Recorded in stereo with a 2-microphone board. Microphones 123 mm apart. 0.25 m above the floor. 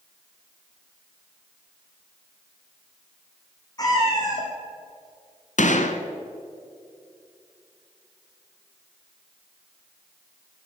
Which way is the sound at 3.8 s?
30° left (ahead or behind).